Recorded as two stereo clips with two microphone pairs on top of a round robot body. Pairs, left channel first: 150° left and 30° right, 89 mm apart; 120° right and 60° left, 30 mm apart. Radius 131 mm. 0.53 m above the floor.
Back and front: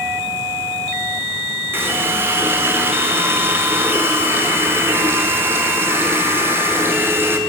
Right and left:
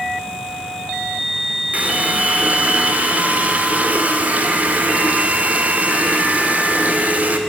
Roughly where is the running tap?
Ahead left.